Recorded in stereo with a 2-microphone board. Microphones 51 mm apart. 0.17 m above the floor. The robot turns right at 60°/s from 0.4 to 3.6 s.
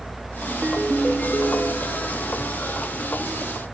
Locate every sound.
0.5 s a ringtone: 30° right, 2 m; by 2.1 s 70° left, 2 m